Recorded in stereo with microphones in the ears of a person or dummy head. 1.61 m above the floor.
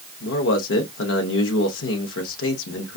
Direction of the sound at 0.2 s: 60° left (ahead or behind).